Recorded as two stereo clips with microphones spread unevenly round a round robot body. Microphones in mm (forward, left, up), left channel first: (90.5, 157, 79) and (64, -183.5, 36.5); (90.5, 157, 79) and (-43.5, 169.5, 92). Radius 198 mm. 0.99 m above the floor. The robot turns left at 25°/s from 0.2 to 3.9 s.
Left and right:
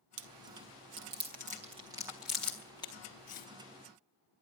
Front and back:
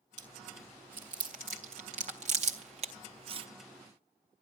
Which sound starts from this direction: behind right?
Chewing, at 0.2 s.